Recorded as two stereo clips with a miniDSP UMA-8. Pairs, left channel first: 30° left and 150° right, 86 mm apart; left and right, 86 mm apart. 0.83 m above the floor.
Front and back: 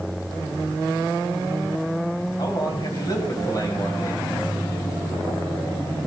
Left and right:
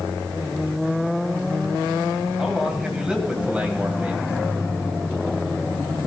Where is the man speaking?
5° right, 4.5 m; by 4.3 s 20° right, 4 m.